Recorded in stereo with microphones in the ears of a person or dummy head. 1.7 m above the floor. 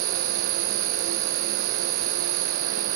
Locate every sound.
0.0 s an insect: 85° right